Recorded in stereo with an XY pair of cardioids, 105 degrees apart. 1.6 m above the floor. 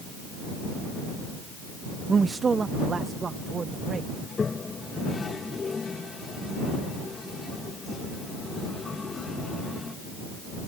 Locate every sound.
2.1 s a man speaking: 30° right; by 4.1 s 40° right
4.2 s a toilet flushing: 30° left